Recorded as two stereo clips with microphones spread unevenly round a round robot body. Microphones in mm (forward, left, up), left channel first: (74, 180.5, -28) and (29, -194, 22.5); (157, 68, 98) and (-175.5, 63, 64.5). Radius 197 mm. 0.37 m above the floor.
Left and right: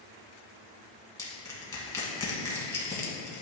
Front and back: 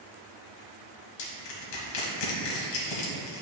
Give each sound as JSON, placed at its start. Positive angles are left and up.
{"t": 1.2, "sound": "crushing", "azimuth_deg": 0, "distance_m": 1.4}